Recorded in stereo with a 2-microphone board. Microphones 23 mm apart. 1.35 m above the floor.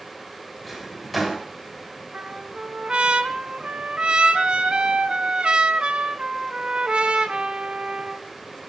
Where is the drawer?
5° left (ahead or behind), 3.5 m.